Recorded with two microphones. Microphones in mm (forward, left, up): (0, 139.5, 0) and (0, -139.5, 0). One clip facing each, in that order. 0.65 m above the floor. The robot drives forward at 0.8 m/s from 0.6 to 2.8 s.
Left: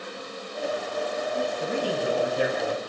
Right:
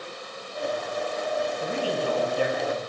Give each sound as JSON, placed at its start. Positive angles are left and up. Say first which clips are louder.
{"t": 0.0, "sound": "an insect", "louder": "left 2 dB", "side_deg": 85, "distance_m": 7.0}
{"t": 1.6, "sound": "a man speaking", "louder": "left 1 dB", "side_deg": 20, "distance_m": 4.5}